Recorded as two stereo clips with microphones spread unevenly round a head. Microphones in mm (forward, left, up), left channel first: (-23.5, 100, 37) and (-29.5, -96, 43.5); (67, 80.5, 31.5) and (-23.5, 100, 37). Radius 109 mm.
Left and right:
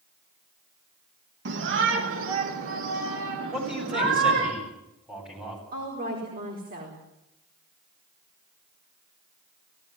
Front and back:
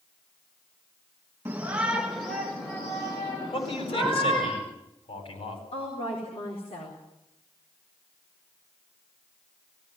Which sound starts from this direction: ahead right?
A woman speaking, at 5.7 s.